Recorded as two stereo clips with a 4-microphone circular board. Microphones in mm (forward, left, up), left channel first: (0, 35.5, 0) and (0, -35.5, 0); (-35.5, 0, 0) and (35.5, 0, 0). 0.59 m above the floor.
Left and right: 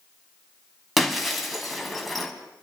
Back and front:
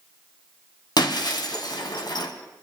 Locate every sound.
1.0 s breaking glass: straight behind, 1.3 m